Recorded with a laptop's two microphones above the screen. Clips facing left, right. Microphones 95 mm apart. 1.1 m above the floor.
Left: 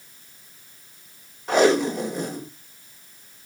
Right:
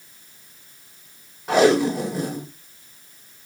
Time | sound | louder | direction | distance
1.5 | tape being pulled | right 2 dB | 5° right (ahead or behind) | 4 m